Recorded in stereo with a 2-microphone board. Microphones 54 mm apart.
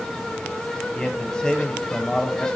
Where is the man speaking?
15° left (ahead or behind), 0.9 m.